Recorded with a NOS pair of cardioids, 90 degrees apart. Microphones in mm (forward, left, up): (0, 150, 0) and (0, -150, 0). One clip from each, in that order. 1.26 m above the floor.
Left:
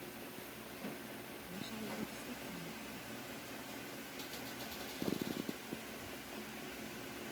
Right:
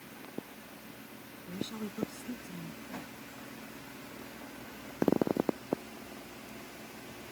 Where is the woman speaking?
50° right.